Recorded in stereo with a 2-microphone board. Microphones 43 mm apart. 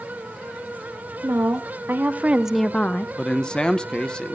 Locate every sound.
1.2 s a woman speaking: 65° right (ahead or behind), 1.7 m; by 3.1 s 50° left (ahead or behind), 0.8 m
3.2 s a man speaking: 20° left (ahead or behind), 0.6 m